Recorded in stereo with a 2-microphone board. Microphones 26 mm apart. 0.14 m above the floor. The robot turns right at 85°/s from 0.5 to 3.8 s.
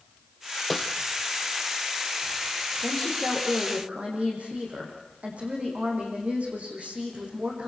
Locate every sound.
0.7 s a snare drum: centre (ahead or behind), 1.0 m; by 0.9 s 15° left (ahead or behind), 1.0 m
2.8 s a woman speaking: 150° left, 7.5 m; by 7.7 s 130° right, 7.5 m